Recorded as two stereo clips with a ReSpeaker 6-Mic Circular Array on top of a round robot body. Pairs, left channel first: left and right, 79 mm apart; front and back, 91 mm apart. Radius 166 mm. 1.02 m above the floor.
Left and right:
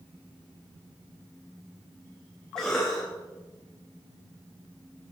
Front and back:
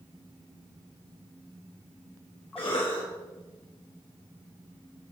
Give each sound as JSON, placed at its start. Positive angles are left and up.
{"t": 2.6, "sound": "a cough", "azimuth_deg": 5, "distance_m": 1.8}